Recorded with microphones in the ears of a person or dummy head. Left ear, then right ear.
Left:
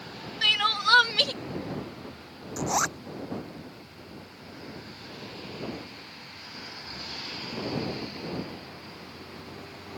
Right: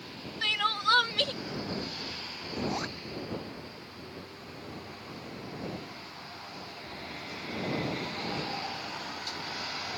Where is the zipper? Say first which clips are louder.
Left 8 dB; 45° left (ahead or behind).